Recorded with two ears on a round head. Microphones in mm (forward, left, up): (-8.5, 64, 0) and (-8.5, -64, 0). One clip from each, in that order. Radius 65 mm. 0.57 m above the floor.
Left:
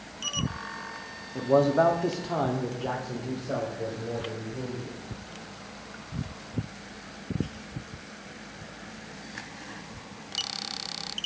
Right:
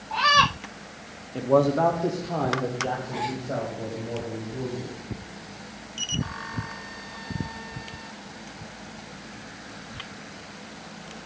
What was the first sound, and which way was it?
A man speaking, 15° right (ahead or behind).